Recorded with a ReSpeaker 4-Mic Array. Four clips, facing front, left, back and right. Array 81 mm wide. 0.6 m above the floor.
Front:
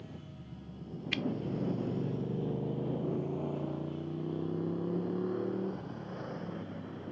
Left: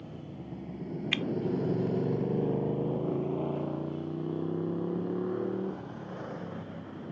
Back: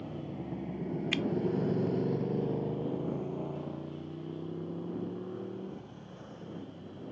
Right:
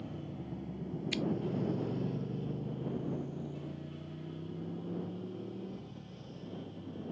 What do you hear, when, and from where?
0.0 s a motorcycle: straight behind; by 7.1 s 65° left
1.1 s scissors: 95° left